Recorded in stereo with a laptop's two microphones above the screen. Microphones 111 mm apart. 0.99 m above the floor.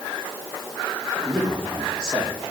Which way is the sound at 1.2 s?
10° right (ahead or behind).